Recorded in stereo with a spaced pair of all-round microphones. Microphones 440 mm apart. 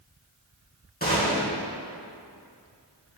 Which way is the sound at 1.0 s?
20° left (ahead or behind).